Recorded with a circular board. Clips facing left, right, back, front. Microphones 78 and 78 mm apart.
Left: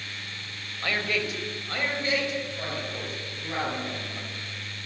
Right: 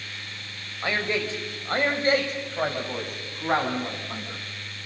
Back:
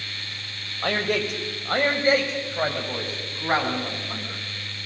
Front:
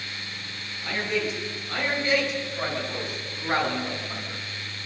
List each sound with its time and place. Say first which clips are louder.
0.8 s a man speaking: right 2 dB, back 3 dB; 160° right, 4 m; by 4.4 s 110° right, 7 m